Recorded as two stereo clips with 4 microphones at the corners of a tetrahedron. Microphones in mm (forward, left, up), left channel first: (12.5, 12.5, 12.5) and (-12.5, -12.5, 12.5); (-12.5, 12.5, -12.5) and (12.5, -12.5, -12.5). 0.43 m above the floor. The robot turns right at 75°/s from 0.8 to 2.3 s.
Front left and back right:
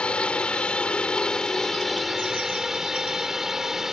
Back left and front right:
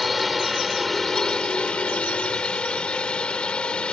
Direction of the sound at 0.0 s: 45° left.